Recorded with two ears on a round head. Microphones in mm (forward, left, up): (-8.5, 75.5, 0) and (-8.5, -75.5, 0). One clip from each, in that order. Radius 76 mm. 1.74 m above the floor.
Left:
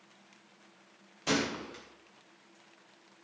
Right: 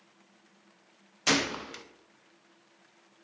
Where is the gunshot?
55° right (ahead or behind), 0.9 m.